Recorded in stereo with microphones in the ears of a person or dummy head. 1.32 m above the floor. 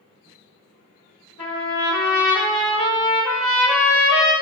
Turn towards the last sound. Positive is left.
turn(degrees=60)  # may be behind; listen again after turning